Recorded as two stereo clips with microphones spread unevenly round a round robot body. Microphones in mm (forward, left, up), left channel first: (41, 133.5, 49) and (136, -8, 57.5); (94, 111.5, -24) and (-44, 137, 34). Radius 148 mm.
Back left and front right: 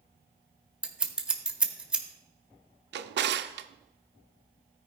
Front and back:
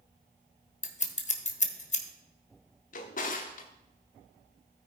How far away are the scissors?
About 1.3 m.